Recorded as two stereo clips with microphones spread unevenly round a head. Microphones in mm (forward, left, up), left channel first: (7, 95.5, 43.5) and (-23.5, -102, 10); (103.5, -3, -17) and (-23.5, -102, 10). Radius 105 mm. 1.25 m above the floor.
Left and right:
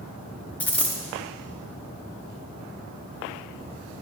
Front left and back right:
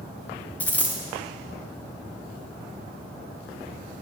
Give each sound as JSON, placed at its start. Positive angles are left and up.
{"t": 0.6, "sound": "a dropped coin", "azimuth_deg": 130, "distance_m": 0.8}